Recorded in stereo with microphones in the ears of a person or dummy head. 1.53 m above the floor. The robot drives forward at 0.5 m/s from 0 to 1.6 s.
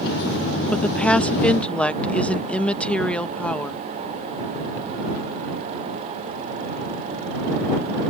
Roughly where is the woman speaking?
Centre.